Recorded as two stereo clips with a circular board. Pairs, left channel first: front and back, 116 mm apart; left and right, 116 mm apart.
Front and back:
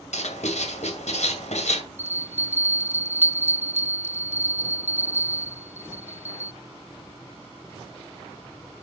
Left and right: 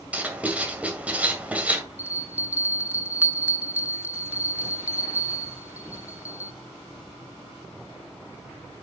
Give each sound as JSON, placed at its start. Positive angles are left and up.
{"t": 0.1, "sound": "writing", "azimuth_deg": -10, "distance_m": 2.0}
{"t": 2.0, "sound": "a bell", "azimuth_deg": -165, "distance_m": 0.6}